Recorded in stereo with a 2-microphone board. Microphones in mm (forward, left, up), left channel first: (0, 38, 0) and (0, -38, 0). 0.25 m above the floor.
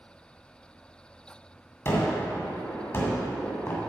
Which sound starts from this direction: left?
A gunshot, at 1.9 s.